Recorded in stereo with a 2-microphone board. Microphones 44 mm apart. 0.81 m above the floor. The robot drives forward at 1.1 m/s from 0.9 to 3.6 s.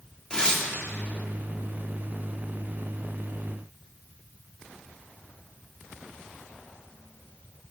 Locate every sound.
0.3 s tearing paper: 20° left (ahead or behind), 2.5 m